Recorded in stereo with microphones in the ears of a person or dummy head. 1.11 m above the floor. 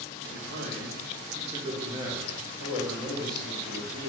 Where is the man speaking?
80° right, 0.9 m; by 4.1 s 5° left (ahead or behind), 1.8 m.